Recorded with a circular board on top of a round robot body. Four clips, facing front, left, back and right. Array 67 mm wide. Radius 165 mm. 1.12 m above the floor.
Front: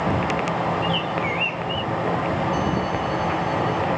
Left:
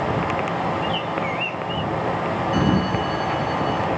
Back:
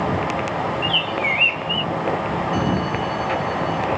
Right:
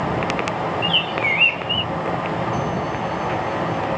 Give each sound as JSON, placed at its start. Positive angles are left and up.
{"t": 0.8, "sound": "a bird", "azimuth_deg": -125}
{"t": 2.5, "sound": "a sliding door", "azimuth_deg": 105}